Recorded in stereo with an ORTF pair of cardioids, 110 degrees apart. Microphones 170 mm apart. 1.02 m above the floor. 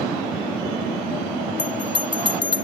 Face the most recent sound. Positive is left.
turn(degrees=30)